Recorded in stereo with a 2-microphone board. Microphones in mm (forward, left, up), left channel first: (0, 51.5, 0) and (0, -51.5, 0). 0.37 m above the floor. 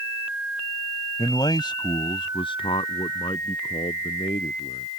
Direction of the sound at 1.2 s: 40° left (ahead or behind).